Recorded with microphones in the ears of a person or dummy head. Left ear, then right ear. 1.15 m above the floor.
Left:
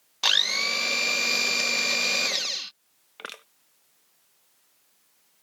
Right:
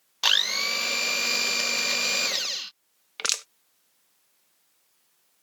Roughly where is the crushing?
Right.